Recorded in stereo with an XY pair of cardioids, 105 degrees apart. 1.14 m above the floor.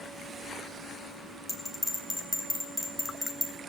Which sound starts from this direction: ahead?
A bell, at 1.5 s.